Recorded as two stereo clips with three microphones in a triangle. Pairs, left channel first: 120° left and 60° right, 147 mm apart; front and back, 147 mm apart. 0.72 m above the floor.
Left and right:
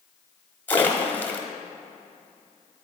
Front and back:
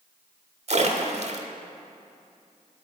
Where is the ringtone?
I don't hear a ringtone.